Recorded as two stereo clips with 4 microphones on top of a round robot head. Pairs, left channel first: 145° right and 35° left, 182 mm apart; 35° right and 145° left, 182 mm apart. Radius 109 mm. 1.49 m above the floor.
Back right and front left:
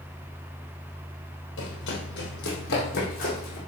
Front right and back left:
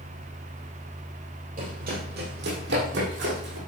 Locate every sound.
1.6 s running footsteps: 165° right, 3.5 m; by 3.6 s 170° left, 6 m